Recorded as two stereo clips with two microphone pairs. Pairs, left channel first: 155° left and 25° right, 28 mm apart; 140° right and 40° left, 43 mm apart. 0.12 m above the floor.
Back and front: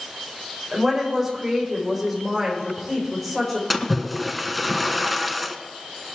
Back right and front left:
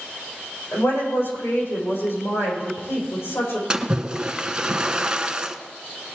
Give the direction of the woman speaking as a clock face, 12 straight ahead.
4 o'clock.